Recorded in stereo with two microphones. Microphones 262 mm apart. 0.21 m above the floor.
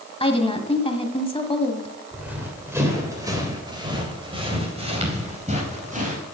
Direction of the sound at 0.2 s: 20° left (ahead or behind).